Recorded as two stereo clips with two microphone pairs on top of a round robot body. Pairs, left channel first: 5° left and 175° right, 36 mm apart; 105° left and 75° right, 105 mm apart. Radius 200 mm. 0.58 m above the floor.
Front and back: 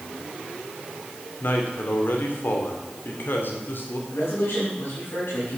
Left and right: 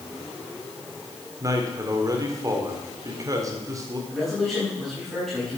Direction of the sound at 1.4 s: 20° right.